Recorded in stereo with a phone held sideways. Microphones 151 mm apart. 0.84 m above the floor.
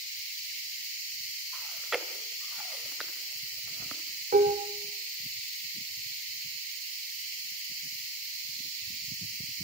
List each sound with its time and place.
1.5 s chewing: centre (ahead or behind), 1.7 m
4.3 s dishes clattering: 85° right, 2 m